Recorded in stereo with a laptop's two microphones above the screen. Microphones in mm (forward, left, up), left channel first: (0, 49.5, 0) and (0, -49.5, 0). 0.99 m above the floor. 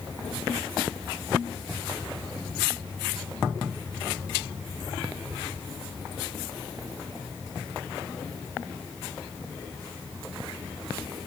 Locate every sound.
Only background noise.